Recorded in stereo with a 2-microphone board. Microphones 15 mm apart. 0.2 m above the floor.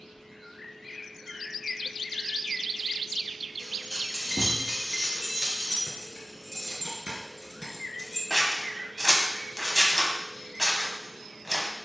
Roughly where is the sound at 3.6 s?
Centre.